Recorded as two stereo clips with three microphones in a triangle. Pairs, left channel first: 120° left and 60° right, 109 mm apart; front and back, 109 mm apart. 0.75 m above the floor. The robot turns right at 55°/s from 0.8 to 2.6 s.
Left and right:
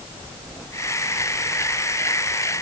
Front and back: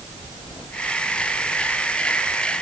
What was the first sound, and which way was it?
Only background noise.